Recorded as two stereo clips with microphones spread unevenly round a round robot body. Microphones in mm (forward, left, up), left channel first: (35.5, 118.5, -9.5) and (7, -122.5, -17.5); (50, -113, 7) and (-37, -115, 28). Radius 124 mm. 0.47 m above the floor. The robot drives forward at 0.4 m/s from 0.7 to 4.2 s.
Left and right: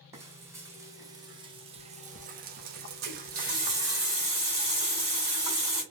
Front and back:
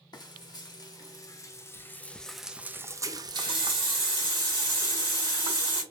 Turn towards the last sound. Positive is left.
turn(degrees=-170)